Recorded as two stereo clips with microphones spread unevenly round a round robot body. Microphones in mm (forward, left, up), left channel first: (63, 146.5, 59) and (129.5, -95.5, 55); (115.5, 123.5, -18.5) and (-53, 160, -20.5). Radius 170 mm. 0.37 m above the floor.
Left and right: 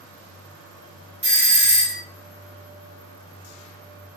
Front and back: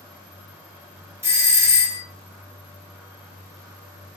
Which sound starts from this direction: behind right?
A doorbell, at 1.2 s.